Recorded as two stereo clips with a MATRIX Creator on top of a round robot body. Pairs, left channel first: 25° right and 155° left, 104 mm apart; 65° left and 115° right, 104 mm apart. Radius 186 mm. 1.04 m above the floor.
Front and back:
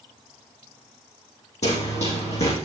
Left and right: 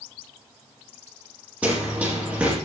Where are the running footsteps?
35° right, 2.5 m.